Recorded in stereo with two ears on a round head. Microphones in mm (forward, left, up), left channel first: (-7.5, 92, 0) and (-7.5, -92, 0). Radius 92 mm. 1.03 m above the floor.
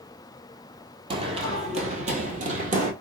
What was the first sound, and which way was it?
Running footsteps, 25° right (ahead or behind).